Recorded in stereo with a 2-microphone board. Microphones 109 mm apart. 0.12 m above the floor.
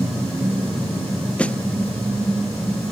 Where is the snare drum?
10° left (ahead or behind).